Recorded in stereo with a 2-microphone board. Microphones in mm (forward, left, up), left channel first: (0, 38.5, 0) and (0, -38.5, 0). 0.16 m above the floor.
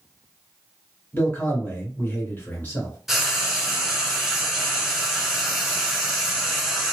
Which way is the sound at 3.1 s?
5° right (ahead or behind).